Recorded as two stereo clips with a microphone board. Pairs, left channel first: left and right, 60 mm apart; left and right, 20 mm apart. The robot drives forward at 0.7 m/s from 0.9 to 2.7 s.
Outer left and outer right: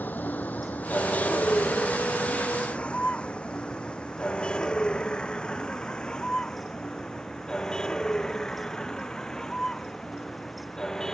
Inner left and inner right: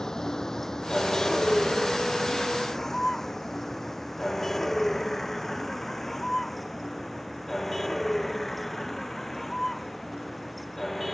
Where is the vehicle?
30° left (ahead or behind); by 11.1 s 10° left (ahead or behind).